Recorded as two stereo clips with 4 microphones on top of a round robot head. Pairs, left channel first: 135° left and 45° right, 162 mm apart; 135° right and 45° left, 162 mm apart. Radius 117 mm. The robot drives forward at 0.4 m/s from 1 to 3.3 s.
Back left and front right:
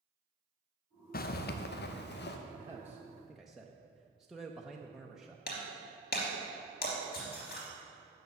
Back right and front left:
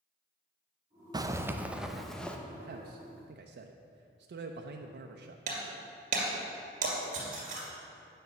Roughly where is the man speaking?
Ahead left.